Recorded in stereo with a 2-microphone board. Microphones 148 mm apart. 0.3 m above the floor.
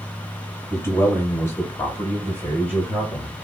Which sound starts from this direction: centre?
A man speaking, at 0.7 s.